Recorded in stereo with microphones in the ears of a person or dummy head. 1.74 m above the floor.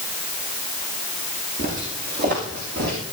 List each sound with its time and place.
1.6 s footsteps: 45° right (ahead or behind), 7 m; by 3.0 s 55° right (ahead or behind), 7.5 m